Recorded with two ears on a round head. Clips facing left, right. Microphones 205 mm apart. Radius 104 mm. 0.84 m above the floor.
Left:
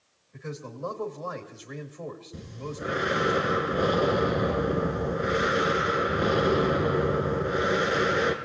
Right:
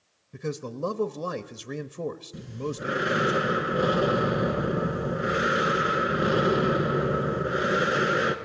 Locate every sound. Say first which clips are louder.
0.3 s a man speaking: right 6 dB; 55° right (ahead or behind), 1.0 m
2.3 s breathing: right 4 dB; 5° right (ahead or behind), 1.6 m